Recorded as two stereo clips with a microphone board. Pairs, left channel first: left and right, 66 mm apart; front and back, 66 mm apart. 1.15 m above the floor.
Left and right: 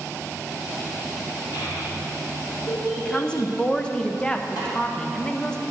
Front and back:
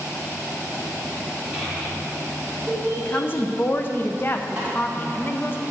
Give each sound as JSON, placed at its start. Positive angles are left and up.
{"t": 1.5, "sound": "a child speaking", "azimuth_deg": 100, "distance_m": 2.0}
{"t": 3.0, "sound": "a woman speaking", "azimuth_deg": 25, "distance_m": 0.5}
{"t": 4.6, "sound": "a snare drum", "azimuth_deg": 105, "distance_m": 3.0}